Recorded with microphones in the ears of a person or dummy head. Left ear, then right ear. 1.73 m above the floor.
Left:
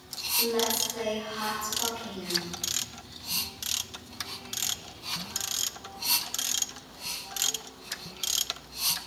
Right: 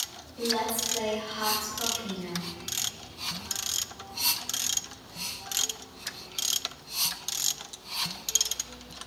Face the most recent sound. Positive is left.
turn(degrees=-70)  # may be behind; listen again after turning